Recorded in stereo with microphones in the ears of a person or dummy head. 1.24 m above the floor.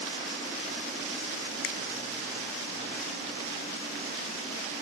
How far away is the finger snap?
About 0.8 m.